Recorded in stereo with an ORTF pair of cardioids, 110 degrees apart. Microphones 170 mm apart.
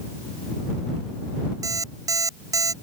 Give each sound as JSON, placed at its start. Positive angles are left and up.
{"t": 1.6, "sound": "an alarm clock", "azimuth_deg": -20}